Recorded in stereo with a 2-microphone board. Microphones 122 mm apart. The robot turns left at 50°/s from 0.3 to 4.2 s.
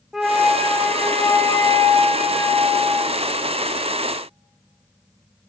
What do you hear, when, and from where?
0.1 s a flute: 175° right, 1.4 m; by 3.0 s 50° left, 1.4 m